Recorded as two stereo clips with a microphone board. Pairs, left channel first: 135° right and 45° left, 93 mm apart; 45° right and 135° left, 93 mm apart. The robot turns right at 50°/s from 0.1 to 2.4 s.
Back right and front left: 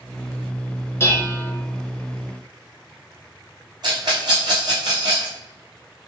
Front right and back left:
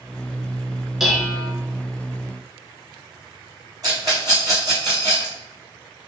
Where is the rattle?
85° left, 1.6 m.